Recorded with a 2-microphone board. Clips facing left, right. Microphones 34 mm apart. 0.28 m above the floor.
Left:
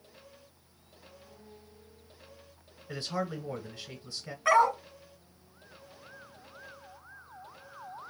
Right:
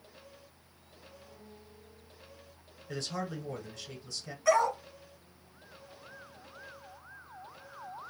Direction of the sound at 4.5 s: 30° left (ahead or behind).